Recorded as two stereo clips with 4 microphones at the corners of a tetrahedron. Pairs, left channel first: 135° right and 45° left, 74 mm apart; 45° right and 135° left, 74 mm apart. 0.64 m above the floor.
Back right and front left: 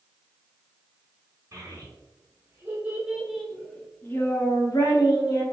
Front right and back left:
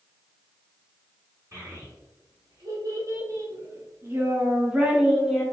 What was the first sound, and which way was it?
A child speaking, 95° left.